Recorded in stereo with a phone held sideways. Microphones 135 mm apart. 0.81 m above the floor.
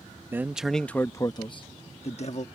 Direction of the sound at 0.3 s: 15° right (ahead or behind).